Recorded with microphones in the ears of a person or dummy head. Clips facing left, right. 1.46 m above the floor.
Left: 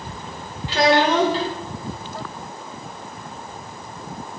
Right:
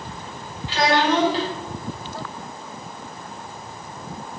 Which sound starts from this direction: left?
A child speaking, at 0.7 s.